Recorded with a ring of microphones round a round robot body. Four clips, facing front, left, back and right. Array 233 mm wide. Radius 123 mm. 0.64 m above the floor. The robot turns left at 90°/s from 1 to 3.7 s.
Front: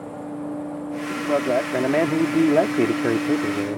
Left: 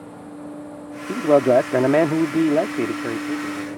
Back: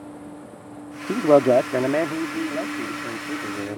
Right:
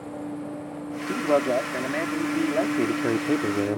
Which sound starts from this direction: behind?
A man speaking, at 1.1 s.